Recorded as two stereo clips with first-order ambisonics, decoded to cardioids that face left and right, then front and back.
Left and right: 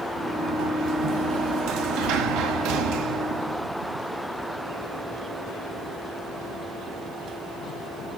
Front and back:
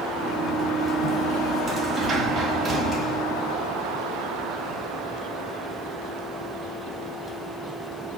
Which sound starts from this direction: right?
A sliding door, at 0.2 s.